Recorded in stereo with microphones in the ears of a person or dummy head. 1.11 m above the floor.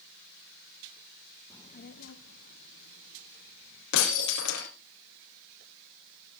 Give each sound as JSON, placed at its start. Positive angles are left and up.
{"t": 1.5, "sound": "a child speaking", "side_deg": 5, "distance_m": 0.5}
{"t": 3.9, "sound": "breaking glass", "side_deg": 75, "distance_m": 3.5}